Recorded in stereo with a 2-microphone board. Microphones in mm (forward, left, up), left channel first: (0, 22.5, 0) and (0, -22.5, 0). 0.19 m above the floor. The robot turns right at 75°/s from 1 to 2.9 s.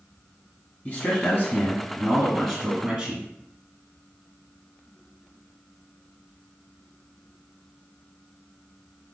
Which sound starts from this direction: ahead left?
A man speaking, at 0.8 s.